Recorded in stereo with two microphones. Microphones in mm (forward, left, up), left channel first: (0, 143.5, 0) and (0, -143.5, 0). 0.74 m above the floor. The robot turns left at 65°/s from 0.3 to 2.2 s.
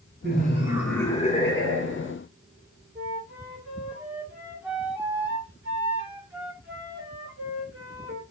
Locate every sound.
0.2 s laughter: 145° right, 1.3 m; by 2.1 s 95° left, 1.3 m
3.0 s a flute: 5° right (ahead or behind), 1.8 m